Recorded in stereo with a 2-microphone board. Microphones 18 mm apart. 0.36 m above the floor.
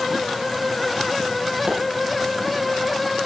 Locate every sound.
1.7 s a pop: 70° right (ahead or behind), 8.5 m